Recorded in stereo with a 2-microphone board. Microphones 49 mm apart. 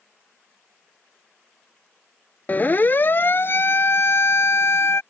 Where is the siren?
35° left (ahead or behind); by 5.0 s 60° left (ahead or behind).